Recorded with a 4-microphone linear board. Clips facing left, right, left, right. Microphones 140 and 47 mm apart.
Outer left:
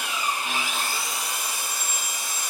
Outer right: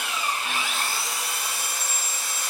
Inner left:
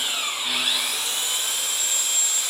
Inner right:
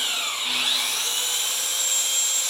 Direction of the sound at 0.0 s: 15° left (ahead or behind).